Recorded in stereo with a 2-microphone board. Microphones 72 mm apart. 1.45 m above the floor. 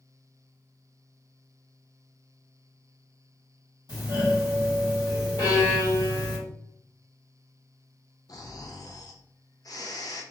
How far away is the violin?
About 1.8 m.